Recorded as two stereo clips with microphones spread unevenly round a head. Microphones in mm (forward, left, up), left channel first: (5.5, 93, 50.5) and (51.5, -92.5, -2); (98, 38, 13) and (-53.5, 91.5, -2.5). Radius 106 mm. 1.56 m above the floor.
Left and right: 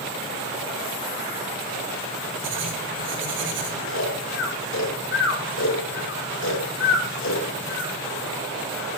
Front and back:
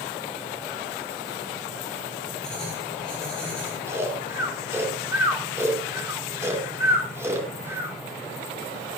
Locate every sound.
2.4 s writing: 105° right, 4 m
3.9 s snoring: 85° left, 5 m